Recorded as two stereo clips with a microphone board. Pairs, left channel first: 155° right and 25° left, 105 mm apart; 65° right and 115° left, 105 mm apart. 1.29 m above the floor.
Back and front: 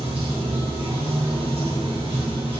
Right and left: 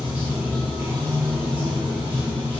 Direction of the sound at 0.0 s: 40° left.